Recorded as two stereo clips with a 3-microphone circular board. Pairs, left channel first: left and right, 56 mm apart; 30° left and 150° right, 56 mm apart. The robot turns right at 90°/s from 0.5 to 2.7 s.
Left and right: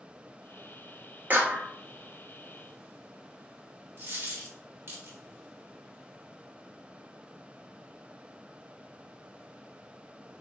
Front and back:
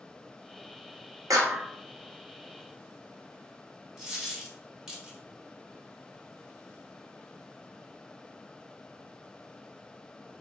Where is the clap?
150° right, 0.9 m; by 1.7 s 115° right, 0.9 m.